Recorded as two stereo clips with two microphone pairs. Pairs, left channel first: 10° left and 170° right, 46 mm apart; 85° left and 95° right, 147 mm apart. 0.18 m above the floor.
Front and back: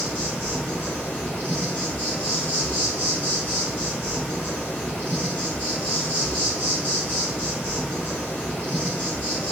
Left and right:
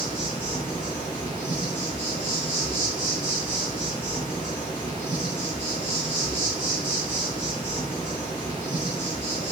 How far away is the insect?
About 1.7 m.